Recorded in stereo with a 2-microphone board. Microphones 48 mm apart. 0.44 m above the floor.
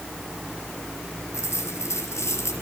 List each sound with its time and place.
1.3 s a dropped coin: 70° left (ahead or behind), 5.5 m